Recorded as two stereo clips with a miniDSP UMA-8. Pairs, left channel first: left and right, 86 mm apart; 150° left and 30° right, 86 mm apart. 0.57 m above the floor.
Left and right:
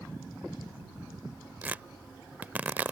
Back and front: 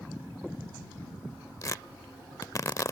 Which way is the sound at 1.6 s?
160° right.